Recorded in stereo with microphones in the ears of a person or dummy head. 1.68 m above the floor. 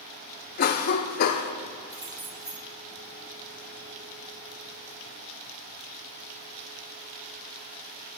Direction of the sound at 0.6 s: 55° left (ahead or behind).